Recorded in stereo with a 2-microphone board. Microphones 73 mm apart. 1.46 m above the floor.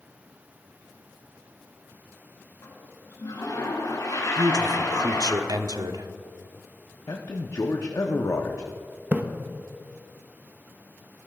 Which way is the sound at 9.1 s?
25° right (ahead or behind).